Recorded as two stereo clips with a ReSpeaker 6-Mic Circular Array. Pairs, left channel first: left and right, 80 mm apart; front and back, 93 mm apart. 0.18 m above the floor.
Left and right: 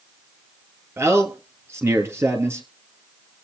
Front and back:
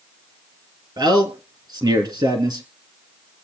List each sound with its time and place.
1.0 s a man speaking: 145° right, 3 m